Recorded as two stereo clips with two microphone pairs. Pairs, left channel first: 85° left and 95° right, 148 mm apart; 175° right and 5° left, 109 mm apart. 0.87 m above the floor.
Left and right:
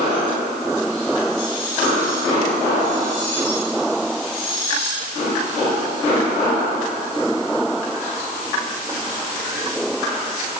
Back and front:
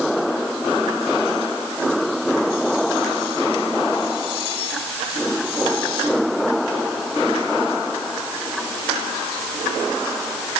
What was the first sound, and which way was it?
Only background noise.